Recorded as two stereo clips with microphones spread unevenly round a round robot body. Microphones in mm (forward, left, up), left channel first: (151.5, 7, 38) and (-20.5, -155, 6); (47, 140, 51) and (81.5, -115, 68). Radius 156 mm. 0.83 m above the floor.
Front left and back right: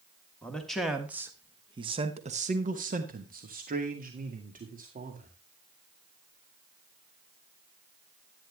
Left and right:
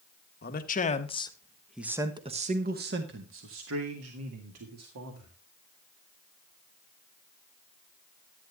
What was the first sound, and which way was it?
A man speaking, 135° left.